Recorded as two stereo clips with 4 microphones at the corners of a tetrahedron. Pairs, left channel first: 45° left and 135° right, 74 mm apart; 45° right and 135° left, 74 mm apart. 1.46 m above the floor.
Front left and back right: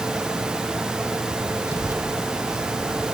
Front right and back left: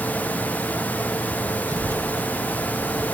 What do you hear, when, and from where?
1.7 s a child speaking: 175° left; by 3.0 s 150° right